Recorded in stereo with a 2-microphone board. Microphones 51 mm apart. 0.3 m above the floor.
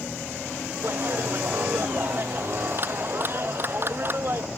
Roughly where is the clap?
Right.